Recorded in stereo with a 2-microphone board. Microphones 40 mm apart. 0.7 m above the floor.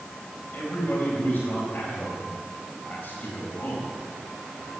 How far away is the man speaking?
About 4 m.